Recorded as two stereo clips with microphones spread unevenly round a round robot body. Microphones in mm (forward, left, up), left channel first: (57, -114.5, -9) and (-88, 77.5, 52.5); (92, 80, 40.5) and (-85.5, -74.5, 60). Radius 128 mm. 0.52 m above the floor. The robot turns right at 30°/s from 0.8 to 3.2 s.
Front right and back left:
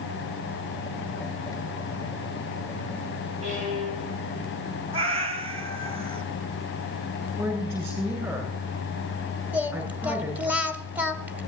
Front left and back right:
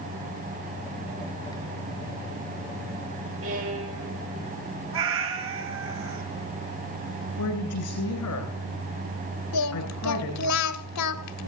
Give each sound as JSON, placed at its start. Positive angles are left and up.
{"t": 3.4, "sound": "a violin", "azimuth_deg": -175, "distance_m": 9.5}
{"t": 4.9, "sound": "a cat meowing", "azimuth_deg": -170, "distance_m": 2.0}
{"t": 7.4, "sound": "a woman speaking", "azimuth_deg": 45, "distance_m": 9.0}
{"t": 9.5, "sound": "singing", "azimuth_deg": 40, "distance_m": 1.0}